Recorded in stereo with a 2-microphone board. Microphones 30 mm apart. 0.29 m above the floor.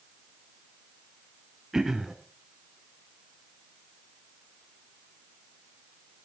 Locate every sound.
1.7 s throat clearing: 15° right (ahead or behind), 1.6 m